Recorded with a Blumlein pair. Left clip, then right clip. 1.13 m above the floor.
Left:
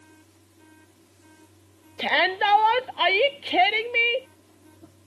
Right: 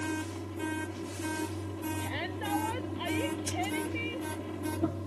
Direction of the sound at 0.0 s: 40° right.